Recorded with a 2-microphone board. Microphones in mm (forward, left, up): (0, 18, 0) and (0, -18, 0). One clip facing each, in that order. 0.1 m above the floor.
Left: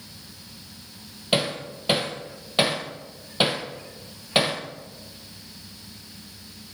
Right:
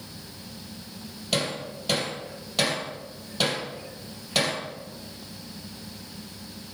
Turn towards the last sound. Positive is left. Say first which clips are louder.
# left 3 dB
turn(degrees=25)  # may be behind; listen again after turning